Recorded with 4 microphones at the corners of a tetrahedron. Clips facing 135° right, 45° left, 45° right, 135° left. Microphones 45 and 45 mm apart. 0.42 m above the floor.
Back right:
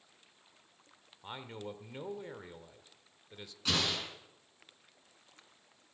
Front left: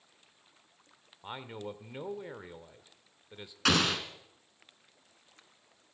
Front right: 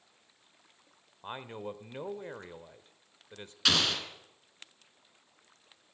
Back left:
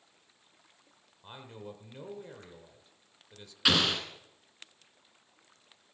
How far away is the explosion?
About 2.5 m.